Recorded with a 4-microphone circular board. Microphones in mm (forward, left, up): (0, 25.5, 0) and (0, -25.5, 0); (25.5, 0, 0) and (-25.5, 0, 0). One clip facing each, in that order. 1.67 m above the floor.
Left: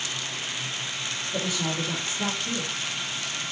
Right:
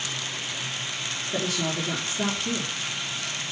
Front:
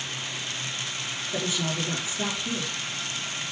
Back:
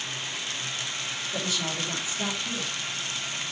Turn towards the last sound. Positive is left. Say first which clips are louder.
# right 1 dB, front 3 dB
turn(degrees=-70)